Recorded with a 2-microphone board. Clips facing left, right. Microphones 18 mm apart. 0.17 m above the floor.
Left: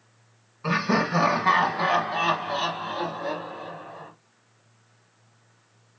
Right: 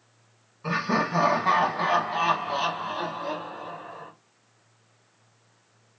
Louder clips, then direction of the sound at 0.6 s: Left 2 dB; 15° left (ahead or behind).